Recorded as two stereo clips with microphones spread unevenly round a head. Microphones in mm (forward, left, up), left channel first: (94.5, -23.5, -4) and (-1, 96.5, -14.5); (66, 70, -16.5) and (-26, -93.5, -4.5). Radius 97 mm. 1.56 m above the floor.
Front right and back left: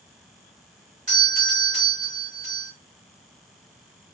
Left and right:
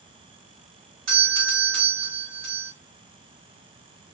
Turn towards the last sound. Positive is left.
turn(degrees=175)